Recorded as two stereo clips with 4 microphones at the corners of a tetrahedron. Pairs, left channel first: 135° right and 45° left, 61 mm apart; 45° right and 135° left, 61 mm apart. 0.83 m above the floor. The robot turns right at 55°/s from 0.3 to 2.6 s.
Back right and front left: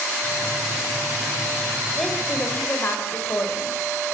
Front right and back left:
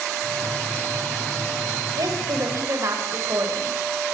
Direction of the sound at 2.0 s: 135° left.